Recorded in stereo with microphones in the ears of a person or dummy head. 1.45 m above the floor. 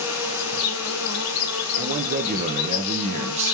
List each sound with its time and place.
0.0 s an insect: 75° left (ahead or behind), 0.8 m
1.8 s a man speaking: 35° right (ahead or behind), 0.5 m